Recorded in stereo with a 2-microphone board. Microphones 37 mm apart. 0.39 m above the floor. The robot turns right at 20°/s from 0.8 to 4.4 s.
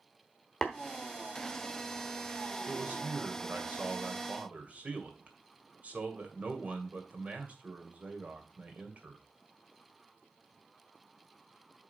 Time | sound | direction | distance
0.6 | tapping | 10° left (ahead or behind) | 1.2 m
2.7 | a man speaking | 95° right | 1.9 m